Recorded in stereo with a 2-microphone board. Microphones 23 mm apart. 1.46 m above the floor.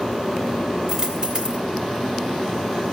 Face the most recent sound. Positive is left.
turn(degrees=-30)  # may be behind; listen again after turning